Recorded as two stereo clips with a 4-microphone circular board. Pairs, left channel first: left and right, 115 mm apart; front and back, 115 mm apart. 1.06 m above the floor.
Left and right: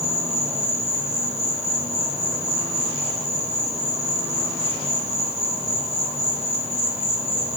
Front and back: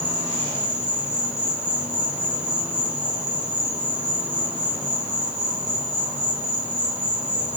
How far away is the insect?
About 3.5 m.